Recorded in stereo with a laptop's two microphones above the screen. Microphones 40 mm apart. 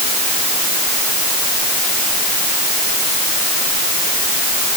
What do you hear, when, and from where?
Only background noise.